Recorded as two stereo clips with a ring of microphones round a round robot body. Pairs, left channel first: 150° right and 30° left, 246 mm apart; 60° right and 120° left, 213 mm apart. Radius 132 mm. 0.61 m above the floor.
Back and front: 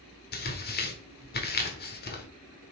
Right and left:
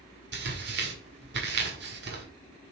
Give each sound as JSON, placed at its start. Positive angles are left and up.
{"t": 0.3, "sound": "tearing paper", "azimuth_deg": 160, "distance_m": 1.6}